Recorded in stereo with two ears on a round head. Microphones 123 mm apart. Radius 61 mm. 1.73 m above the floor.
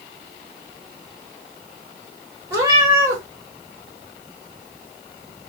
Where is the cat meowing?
25° right (ahead or behind), 1.6 m.